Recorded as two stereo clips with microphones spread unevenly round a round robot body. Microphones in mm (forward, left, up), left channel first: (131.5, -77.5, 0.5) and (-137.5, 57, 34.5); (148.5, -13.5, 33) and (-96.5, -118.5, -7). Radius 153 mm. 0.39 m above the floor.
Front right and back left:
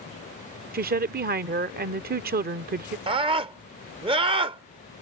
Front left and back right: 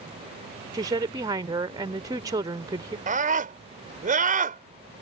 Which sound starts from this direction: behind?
A woman speaking, at 0.7 s.